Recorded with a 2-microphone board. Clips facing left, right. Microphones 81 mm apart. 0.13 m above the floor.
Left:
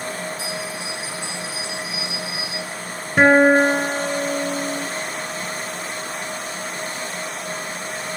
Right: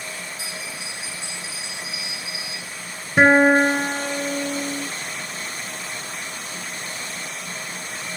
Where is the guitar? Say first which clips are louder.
Left 1 dB; 5° right (ahead or behind), 1.0 m.